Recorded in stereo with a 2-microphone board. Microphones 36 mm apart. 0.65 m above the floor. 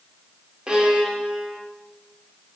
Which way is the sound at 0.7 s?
20° right (ahead or behind).